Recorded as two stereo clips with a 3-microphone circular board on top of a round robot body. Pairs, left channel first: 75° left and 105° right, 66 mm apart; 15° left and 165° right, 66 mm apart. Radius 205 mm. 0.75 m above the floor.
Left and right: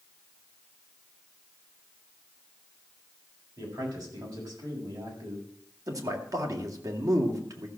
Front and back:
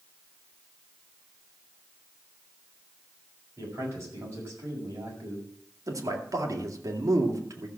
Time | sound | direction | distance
3.6 | a man speaking | 120° right | 6.5 m
5.9 | a man speaking | 135° right | 2.5 m